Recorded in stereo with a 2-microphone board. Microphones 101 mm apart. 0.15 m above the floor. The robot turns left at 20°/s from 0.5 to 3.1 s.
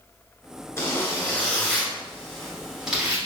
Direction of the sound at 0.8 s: 35° left.